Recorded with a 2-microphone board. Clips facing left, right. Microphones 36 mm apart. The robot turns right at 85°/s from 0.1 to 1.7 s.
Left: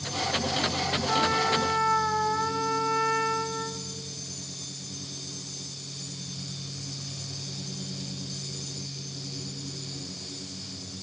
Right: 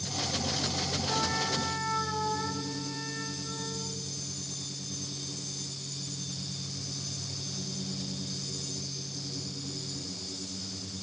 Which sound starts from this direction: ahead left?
A trumpet, at 1.1 s.